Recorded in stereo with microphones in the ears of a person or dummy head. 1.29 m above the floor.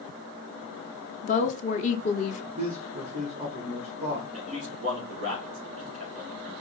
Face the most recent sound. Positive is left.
turn(degrees=-40)  # may be behind; listen again after turning